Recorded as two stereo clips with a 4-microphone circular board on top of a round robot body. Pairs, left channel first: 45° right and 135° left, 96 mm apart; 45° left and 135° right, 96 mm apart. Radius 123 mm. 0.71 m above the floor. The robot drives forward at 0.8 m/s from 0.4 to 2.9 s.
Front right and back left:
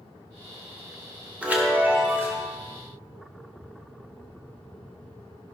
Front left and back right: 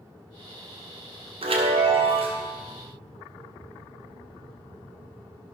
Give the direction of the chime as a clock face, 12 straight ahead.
5 o'clock.